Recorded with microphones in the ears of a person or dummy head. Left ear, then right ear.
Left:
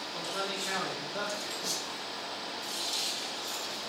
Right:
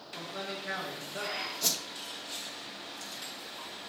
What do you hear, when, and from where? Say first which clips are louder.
0.1 s a man speaking: left 3 dB; 5° left (ahead or behind), 3 m
1.6 s a whoosh: right 6 dB; 75° right (ahead or behind), 1.0 m